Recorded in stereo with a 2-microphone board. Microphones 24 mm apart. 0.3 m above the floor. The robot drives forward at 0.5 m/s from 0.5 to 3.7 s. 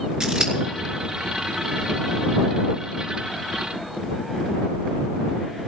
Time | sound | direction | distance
0.2 | scissors | 35° right (ahead or behind) | 2.5 m